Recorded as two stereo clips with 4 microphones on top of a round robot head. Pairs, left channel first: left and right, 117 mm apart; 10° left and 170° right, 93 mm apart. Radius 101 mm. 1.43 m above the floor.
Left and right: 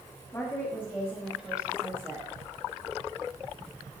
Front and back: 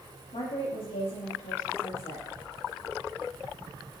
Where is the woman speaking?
30° left, 3.5 m; by 2.3 s 25° right, 3 m.